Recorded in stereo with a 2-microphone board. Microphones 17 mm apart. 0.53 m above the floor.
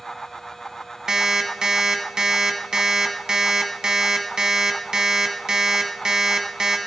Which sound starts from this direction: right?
An alarm clock, at 1.1 s.